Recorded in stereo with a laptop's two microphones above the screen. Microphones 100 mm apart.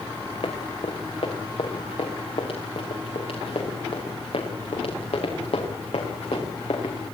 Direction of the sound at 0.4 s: 75° left (ahead or behind).